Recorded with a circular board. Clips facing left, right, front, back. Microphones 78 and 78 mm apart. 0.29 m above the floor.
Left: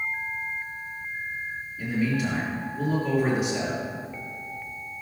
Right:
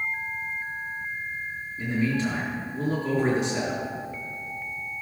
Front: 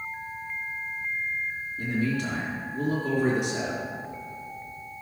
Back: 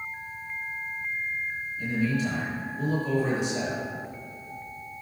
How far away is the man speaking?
About 3.5 m.